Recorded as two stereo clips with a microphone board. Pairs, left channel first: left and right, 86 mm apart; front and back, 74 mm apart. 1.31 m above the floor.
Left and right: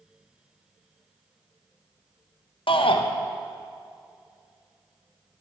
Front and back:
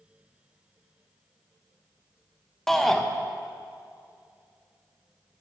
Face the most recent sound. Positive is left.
turn(degrees=85)